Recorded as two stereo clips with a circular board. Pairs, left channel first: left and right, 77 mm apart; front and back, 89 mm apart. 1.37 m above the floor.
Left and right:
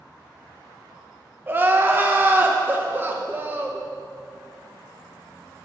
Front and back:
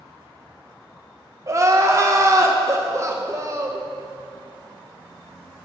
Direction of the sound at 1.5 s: 140° right.